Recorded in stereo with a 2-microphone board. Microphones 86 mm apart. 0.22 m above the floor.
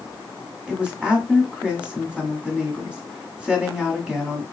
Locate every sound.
0.7 s a woman speaking: 10° right (ahead or behind), 1.6 m